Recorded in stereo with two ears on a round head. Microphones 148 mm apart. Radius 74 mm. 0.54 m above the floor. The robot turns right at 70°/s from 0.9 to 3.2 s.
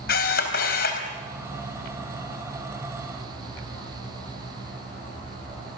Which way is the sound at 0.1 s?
65° left (ahead or behind).